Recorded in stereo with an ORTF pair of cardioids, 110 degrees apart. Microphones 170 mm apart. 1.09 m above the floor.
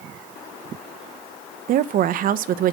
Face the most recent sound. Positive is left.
turn(degrees=-60)